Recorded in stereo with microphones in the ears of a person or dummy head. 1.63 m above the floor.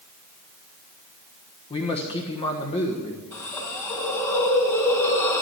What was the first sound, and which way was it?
A man speaking, 30° left (ahead or behind).